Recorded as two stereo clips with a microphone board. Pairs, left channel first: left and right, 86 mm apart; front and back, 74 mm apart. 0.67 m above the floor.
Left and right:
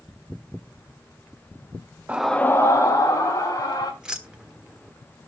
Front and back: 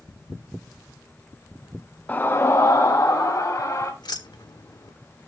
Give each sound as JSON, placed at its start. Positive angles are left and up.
{"t": 2.1, "sound": "a scream", "azimuth_deg": -40, "distance_m": 0.6}
{"t": 4.0, "sound": "keys jangling", "azimuth_deg": -10, "distance_m": 1.2}